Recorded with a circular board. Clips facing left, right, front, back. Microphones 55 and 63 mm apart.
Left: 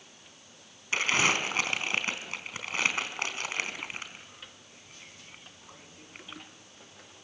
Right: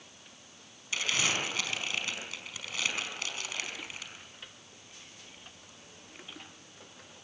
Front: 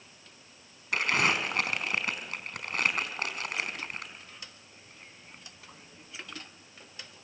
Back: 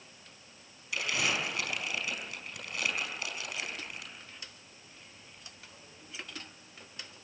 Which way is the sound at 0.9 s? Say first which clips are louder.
Left 5 dB, front 5 dB; 40° left.